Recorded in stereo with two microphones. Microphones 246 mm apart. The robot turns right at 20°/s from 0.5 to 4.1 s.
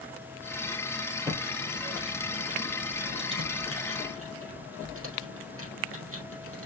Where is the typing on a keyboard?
10° right (ahead or behind), 3.5 m; by 6.7 s 60° right (ahead or behind), 3.5 m.